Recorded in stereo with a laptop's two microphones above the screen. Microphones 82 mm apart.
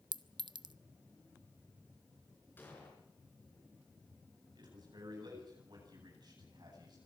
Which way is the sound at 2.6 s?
25° left (ahead or behind).